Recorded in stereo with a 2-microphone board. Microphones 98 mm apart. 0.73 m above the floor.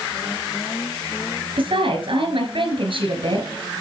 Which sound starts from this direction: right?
A woman speaking, at 1.6 s.